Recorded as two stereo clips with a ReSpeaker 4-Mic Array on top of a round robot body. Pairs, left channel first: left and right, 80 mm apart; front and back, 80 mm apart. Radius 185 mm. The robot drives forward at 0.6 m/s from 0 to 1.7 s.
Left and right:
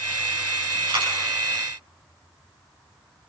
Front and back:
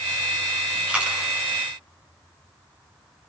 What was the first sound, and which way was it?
A dropped coin, 105° right.